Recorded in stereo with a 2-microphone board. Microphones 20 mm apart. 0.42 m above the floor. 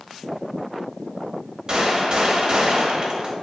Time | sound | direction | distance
1.7 | a gunshot | 40° right (ahead or behind) | 0.7 m